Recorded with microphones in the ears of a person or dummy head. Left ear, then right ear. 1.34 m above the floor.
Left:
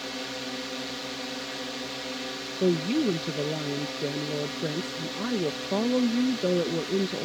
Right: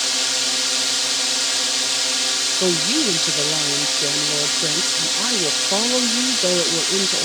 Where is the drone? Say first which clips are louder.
Right 14 dB; 50° right (ahead or behind).